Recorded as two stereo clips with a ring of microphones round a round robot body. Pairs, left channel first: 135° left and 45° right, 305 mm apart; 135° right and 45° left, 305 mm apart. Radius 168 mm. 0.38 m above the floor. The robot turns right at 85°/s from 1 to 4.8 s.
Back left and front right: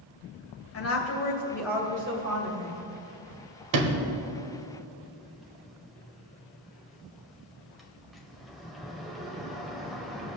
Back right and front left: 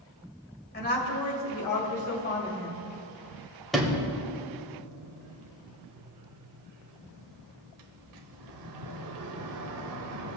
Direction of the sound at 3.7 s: 45° right.